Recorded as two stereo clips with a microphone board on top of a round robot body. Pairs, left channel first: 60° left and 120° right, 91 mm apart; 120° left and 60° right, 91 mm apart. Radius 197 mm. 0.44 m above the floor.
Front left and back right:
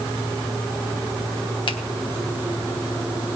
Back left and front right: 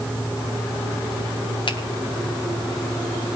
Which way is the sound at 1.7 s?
85° left.